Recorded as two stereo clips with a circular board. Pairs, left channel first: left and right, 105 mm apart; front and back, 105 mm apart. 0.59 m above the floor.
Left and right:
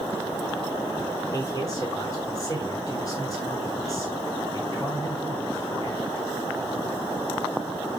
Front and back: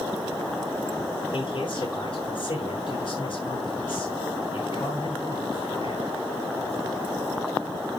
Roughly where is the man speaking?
Ahead left.